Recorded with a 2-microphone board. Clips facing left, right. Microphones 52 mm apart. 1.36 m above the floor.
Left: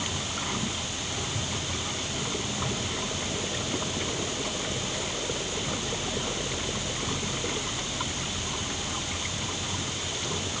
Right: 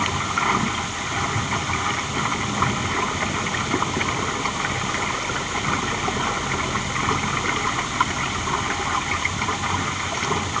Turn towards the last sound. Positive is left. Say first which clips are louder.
# right 11 dB
turn(degrees=-60)  # may be behind; listen again after turning